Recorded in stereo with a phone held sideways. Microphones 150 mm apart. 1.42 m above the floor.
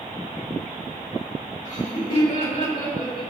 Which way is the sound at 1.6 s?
55° left (ahead or behind).